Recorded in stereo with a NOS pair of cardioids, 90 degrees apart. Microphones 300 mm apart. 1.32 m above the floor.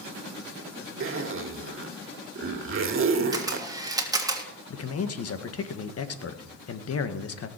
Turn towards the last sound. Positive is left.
turn(degrees=50)